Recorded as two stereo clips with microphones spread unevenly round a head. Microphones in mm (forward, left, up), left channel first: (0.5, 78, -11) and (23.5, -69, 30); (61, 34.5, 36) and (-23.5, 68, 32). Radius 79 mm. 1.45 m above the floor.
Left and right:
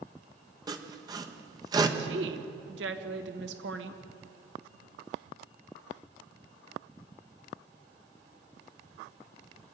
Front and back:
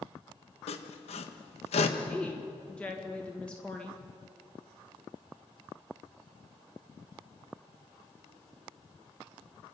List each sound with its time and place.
0.7 s sawing: 20° right, 1.2 m
2.0 s a woman speaking: 105° right, 1.6 m